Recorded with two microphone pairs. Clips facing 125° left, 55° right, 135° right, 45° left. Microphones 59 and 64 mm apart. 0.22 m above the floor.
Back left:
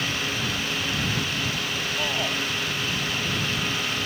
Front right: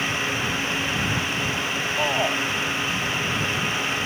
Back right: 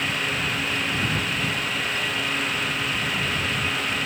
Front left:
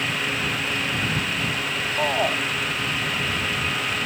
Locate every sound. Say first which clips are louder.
2.0 s a shout: front right 6 dB, front left 5 dB; 10° left